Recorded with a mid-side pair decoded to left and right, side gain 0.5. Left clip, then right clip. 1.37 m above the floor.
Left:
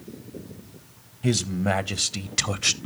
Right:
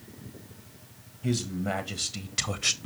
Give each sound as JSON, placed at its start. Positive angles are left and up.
{"t": 1.2, "sound": "a man speaking", "azimuth_deg": 50, "distance_m": 1.6}